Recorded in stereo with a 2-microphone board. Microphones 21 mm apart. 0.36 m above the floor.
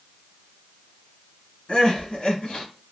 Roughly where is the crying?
Left.